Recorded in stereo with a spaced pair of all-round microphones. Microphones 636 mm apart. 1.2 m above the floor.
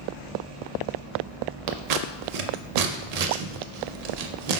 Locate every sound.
1.7 s scissors: 70° right (ahead or behind), 0.5 m